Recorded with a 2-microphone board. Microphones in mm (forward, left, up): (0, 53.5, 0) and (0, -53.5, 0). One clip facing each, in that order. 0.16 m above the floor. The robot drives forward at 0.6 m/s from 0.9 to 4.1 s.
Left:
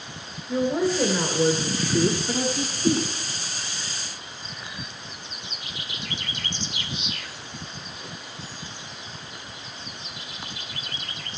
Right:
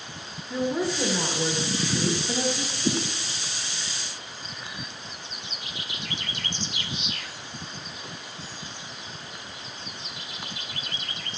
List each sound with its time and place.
0.5 s a woman speaking: 50° left (ahead or behind), 2.5 m